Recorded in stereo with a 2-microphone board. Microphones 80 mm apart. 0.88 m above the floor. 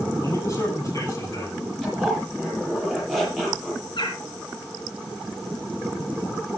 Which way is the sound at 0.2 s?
40° left (ahead or behind).